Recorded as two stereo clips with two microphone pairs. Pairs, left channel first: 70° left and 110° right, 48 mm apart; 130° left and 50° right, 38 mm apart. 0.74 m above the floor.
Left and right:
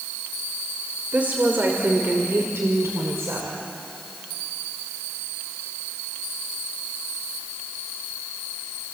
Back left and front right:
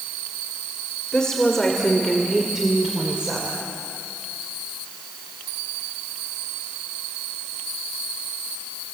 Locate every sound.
1.1 s a woman speaking: 165° right, 3 m; by 3.6 s 105° right, 3 m